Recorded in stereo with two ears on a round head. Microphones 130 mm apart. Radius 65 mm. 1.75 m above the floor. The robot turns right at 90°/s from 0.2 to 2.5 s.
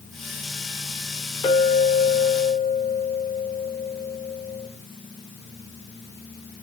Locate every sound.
1.4 s a clink: 25° left, 2 m; by 4.7 s 125° left, 2 m